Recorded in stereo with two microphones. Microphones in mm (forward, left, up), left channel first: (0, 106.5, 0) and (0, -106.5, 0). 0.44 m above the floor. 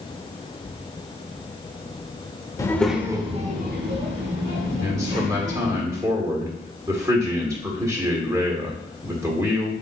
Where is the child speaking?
15° left (ahead or behind), 0.7 m; by 5.8 s 75° right (ahead or behind), 2 m.